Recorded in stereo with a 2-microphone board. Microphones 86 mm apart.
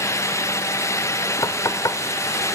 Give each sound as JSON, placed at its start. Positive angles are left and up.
{"t": 1.4, "sound": "knocking", "side_deg": 45, "distance_m": 0.9}